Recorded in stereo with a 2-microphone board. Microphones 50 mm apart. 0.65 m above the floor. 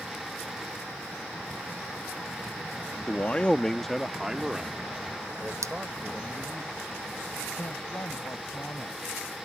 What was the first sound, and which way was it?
A man speaking, 35° left (ahead or behind).